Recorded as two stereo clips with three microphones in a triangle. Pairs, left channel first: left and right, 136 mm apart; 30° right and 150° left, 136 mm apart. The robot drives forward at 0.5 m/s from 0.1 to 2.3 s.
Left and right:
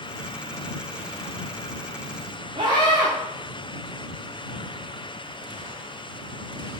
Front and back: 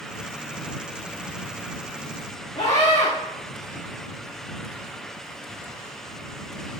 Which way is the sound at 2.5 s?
65° right.